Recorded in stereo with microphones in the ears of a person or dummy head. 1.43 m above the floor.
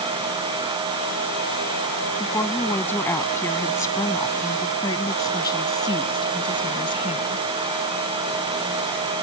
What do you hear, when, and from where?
2.2 s a woman speaking: 10° left (ahead or behind); by 7.5 s 30° left (ahead or behind)